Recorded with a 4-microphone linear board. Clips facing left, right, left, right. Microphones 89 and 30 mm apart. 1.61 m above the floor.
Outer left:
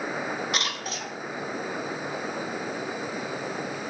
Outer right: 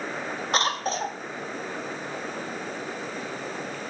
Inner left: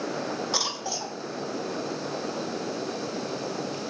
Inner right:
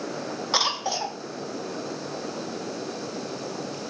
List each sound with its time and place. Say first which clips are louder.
0.5 s a cough: outer right 6 dB, inner right 5 dB; 35° right (ahead or behind), 0.5 m